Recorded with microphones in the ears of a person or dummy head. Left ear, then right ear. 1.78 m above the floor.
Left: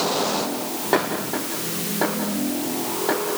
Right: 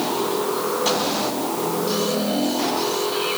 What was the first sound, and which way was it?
Only background noise.